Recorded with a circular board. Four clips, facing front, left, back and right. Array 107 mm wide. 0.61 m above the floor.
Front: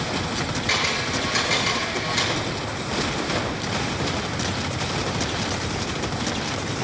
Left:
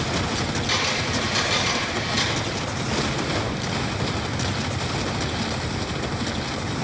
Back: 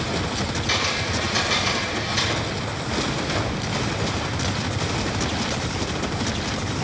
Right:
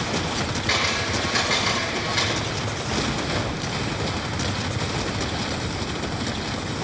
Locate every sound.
0.7 s a camera shutter: 50° right, 9 m